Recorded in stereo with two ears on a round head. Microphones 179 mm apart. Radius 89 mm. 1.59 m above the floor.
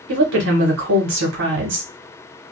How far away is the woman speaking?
About 1.1 m.